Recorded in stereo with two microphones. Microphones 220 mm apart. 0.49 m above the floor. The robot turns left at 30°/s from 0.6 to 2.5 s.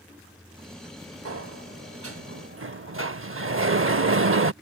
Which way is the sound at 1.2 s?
75° right.